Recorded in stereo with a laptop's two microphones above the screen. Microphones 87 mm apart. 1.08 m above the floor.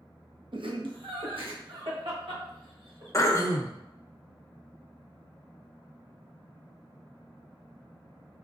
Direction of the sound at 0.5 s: 65° right (ahead or behind).